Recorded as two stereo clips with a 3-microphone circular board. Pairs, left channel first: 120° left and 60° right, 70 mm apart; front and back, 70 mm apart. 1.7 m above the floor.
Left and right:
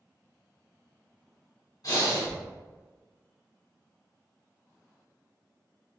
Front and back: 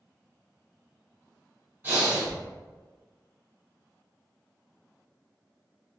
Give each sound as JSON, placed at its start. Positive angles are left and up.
{"t": 1.8, "sound": "breathing", "azimuth_deg": 120, "distance_m": 1.6}